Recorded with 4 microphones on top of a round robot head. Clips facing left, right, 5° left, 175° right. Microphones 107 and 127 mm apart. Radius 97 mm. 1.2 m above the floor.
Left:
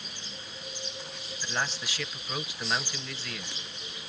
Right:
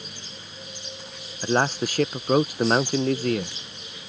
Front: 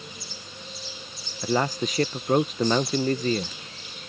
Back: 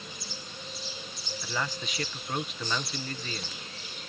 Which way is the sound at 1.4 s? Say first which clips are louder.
Right 11 dB, front 11 dB; 45° right.